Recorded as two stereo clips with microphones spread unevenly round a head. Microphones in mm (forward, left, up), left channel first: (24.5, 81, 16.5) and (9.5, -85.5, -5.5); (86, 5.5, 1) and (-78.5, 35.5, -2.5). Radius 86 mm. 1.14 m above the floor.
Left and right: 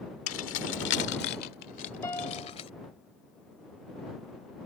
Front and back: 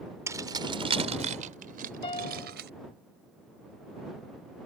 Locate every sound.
0.3 s keys jangling: 95° left; by 2.7 s 145° left
2.0 s a piano: 30° left